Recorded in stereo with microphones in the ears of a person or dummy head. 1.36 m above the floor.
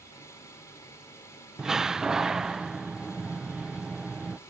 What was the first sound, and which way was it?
An engine running, 15° left (ahead or behind).